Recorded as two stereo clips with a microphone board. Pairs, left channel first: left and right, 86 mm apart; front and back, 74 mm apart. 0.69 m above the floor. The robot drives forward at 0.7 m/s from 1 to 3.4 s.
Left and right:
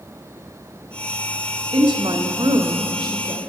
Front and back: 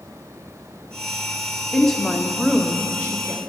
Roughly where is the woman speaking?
Right.